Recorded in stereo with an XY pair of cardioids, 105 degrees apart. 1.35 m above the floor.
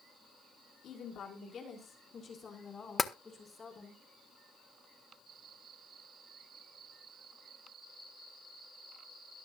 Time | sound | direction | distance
0.8 | a woman speaking | 60° left | 4.5 m
3.0 | tapping | 30° left | 0.9 m